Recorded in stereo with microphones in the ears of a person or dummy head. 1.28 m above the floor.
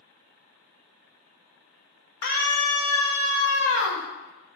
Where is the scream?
60° left (ahead or behind), 0.9 m.